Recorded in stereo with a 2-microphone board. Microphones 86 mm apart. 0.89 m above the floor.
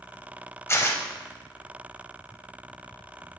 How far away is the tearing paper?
About 0.7 m.